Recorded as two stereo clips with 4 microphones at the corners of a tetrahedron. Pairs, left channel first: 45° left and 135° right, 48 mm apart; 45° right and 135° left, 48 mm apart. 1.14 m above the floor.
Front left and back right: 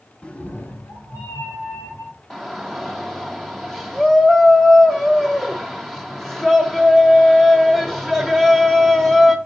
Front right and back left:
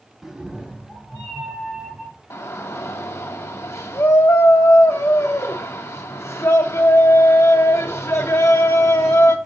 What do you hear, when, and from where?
0.2 s a cat meowing: 75° left, 0.7 m; by 2.1 s 65° left, 3 m
2.3 s a shout: 45° right, 0.6 m